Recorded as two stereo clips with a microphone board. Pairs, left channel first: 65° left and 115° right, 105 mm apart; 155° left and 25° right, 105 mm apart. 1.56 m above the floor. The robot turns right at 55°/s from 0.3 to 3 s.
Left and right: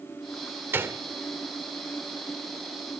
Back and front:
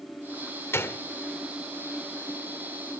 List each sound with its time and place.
0.7 s a gunshot: 165° right, 1.4 m; by 1.0 s 150° right, 1.4 m